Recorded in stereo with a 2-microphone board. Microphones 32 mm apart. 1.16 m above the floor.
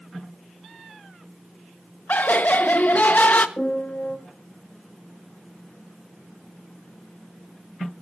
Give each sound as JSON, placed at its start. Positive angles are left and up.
{"t": 2.1, "sound": "laughter", "side_deg": 65, "distance_m": 1.1}
{"t": 3.6, "sound": "a piano", "side_deg": 80, "distance_m": 5.5}